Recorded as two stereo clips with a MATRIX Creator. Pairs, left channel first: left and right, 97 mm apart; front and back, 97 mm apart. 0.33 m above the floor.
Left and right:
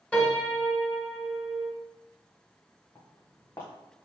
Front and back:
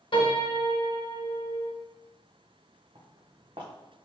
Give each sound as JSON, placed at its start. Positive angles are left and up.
{"t": 0.1, "sound": "a piano", "azimuth_deg": 15, "distance_m": 1.3}
{"t": 3.0, "sound": "footsteps", "azimuth_deg": 150, "distance_m": 1.5}